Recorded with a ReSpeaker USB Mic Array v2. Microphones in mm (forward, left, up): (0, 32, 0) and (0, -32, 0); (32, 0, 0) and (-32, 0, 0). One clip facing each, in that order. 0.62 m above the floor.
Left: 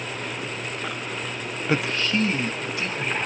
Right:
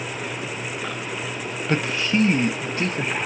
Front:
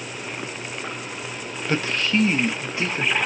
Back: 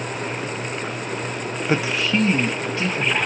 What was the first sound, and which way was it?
A man speaking, 150° left.